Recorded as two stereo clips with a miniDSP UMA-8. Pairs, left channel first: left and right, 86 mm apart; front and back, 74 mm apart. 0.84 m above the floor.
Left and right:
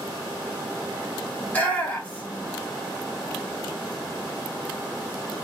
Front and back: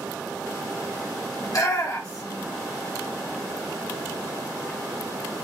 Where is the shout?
20° left, 1.5 m.